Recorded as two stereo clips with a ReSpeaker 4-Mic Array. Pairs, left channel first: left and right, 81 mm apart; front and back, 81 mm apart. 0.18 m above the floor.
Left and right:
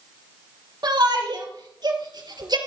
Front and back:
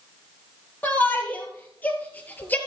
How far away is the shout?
About 4 m.